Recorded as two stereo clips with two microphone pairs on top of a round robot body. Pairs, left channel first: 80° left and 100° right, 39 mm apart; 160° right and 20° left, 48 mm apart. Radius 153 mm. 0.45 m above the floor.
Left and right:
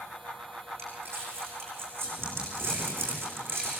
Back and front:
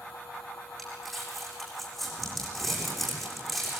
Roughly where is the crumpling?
Right.